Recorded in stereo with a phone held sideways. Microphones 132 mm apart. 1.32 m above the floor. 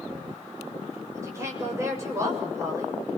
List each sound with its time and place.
1.1 s a woman speaking: 20° right (ahead or behind), 6 m